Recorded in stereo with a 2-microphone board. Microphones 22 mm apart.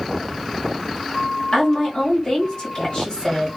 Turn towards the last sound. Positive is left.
turn(degrees=35)  # may be behind; listen again after turning